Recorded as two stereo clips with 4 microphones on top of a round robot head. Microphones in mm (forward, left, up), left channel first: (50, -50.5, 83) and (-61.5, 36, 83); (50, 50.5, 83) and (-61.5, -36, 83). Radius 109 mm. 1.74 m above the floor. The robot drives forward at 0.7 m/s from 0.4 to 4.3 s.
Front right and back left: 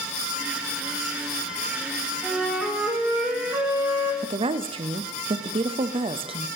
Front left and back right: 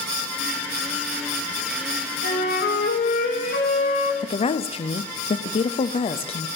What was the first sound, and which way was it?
A flute, 50° left.